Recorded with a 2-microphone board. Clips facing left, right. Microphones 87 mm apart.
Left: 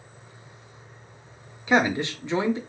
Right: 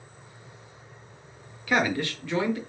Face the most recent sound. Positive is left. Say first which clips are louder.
# left 3 dB
turn(degrees=20)  # may be behind; listen again after turning